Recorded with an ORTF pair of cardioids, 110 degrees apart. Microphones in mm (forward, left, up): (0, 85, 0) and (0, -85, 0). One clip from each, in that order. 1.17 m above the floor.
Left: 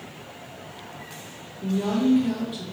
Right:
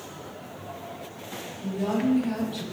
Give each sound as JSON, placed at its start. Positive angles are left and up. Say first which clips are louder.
{"t": 1.6, "sound": "a woman speaking", "louder": "left 3 dB", "azimuth_deg": 50, "distance_m": 1.0}